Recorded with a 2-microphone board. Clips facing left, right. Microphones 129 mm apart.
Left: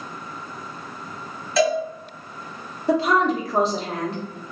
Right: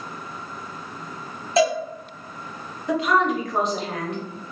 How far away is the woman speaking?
About 0.8 m.